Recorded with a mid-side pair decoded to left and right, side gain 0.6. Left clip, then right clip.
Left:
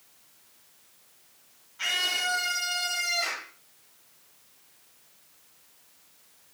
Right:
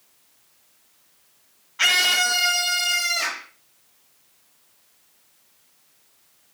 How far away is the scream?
About 0.9 m.